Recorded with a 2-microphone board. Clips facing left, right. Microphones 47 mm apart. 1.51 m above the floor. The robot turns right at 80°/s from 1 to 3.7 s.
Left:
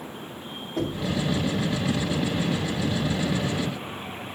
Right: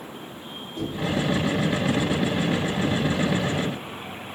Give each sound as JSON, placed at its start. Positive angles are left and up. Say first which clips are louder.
{"t": 0.8, "sound": "knocking", "louder": "left 1 dB", "side_deg": 55, "distance_m": 2.5}